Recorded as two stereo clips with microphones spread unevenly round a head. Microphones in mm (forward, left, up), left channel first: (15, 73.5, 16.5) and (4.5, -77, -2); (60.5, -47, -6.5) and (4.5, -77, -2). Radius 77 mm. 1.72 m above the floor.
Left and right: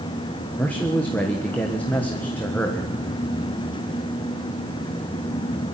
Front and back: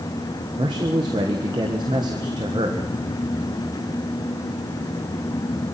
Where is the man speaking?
165° left, 1.4 m.